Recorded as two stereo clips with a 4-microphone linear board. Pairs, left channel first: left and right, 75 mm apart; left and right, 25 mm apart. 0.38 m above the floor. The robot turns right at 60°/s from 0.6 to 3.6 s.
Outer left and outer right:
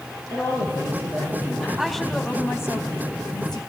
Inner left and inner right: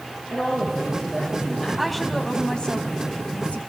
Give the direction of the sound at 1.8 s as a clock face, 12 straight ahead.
12 o'clock.